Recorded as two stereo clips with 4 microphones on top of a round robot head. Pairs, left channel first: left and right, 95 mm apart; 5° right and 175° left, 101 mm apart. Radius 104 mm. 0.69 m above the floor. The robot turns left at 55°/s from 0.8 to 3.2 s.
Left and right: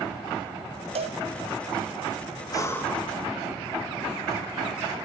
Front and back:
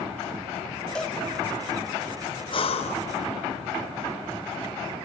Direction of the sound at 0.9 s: 85° right.